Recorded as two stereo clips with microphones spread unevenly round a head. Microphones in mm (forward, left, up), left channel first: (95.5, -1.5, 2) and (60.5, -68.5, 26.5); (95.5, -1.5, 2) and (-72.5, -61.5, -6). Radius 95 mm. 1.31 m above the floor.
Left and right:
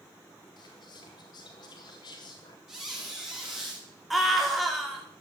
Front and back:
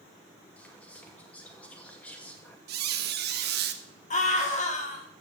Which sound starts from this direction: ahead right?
A scream, at 4.1 s.